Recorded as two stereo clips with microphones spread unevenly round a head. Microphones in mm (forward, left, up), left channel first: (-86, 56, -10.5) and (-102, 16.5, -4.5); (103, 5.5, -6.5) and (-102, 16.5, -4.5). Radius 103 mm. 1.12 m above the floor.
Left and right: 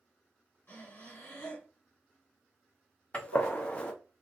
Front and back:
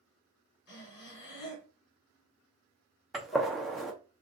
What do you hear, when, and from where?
0.7 s breathing: 20° left, 1.4 m
3.1 s a gunshot: 90° left, 0.5 m